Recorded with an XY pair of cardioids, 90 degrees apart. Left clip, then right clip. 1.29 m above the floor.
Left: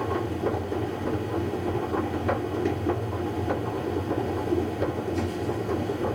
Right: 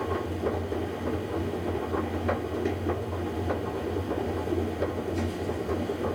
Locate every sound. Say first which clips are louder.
0.0 s a machine running: left 2 dB; 20° left, 1.7 m